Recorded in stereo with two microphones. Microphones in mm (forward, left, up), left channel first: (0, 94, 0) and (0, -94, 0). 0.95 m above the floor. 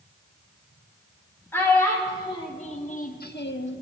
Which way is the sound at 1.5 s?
10° left (ahead or behind).